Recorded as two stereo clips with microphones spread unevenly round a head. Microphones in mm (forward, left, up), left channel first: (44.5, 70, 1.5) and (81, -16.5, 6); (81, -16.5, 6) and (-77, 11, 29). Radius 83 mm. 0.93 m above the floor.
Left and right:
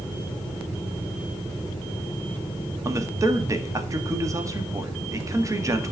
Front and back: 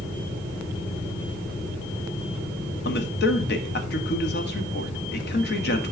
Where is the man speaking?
10° right, 1.7 m.